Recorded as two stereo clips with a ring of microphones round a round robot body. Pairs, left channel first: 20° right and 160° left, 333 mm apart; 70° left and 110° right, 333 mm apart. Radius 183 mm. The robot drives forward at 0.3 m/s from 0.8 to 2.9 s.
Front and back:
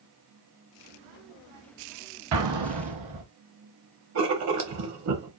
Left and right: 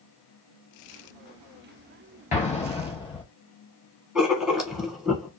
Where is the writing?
160° left, 1.1 m.